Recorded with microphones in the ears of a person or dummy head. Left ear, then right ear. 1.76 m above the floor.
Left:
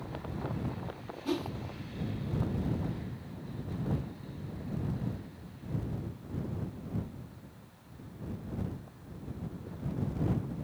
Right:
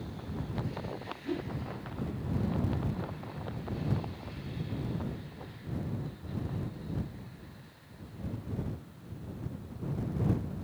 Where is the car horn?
I don't hear a car horn.